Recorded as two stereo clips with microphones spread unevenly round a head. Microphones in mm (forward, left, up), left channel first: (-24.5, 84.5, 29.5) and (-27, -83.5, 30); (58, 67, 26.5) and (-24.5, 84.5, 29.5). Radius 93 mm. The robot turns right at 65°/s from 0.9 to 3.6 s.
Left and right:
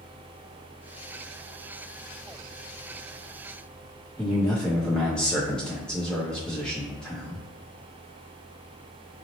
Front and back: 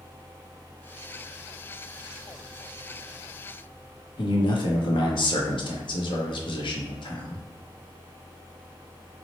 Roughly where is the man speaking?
Ahead.